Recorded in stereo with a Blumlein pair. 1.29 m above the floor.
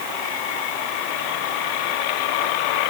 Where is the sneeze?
I don't hear a sneeze.